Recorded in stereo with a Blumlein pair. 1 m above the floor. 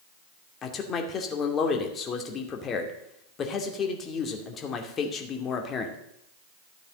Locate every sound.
0.6 s a man speaking: 25° left, 2.5 m